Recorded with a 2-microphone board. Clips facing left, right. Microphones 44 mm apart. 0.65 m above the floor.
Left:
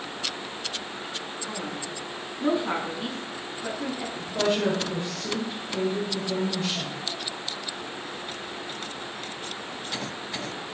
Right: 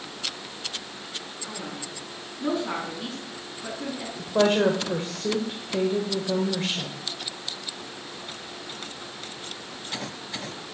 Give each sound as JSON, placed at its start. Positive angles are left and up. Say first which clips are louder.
{"t": 1.4, "sound": "a man speaking", "louder": "left 2 dB", "side_deg": 15, "distance_m": 5.0}
{"t": 4.2, "sound": "a woman speaking", "louder": "right 5 dB", "side_deg": -50, "distance_m": 2.5}